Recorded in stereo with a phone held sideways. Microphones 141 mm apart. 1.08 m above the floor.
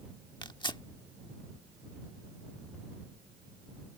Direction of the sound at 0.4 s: 35° left (ahead or behind).